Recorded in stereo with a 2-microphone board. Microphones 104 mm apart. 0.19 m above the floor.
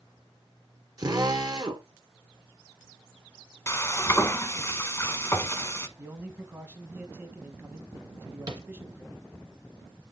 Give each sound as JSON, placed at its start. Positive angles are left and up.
{"t": 1.0, "sound": "a drill", "side_deg": -45, "distance_m": 1.4}
{"t": 3.7, "sound": "frying", "side_deg": 30, "distance_m": 0.8}
{"t": 6.0, "sound": "a man speaking", "side_deg": -25, "distance_m": 1.1}
{"t": 8.5, "sound": "tapping", "side_deg": -50, "distance_m": 1.9}